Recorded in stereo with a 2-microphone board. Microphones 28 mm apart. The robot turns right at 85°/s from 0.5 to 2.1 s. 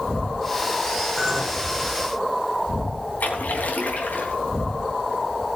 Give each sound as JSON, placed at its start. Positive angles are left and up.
{"t": 1.2, "sound": "a clink", "azimuth_deg": 160, "distance_m": 4.0}
{"t": 3.2, "sound": "a splash", "side_deg": 80, "distance_m": 3.5}